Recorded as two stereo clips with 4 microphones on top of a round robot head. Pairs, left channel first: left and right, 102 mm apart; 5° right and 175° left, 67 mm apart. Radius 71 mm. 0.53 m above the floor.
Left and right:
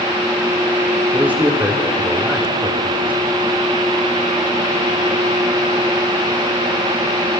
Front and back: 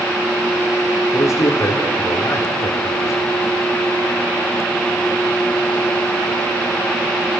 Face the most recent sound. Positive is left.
turn(degrees=-20)